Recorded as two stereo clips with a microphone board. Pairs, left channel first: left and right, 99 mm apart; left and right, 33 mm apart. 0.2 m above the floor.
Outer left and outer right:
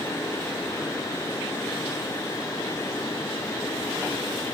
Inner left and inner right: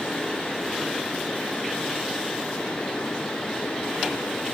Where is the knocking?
No knocking in this recording.